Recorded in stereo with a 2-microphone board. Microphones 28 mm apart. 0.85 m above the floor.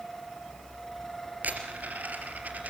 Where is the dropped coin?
75° right (ahead or behind), 3.5 m.